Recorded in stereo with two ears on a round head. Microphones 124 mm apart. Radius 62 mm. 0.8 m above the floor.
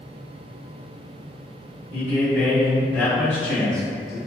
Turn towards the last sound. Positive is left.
turn(degrees=0)  # may be behind; listen again after turning